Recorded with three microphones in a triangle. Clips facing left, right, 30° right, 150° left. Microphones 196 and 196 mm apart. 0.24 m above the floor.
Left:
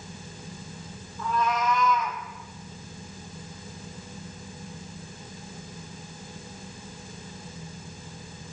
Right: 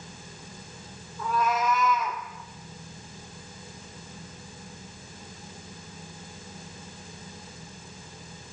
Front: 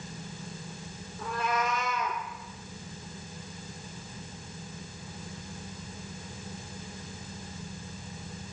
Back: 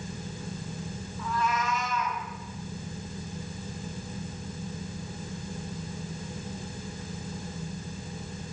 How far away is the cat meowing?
About 4 m.